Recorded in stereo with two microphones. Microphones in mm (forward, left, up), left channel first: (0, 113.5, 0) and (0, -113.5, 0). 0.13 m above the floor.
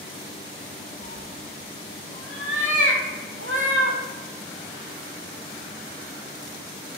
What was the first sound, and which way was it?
A cat meowing, 70° right (ahead or behind).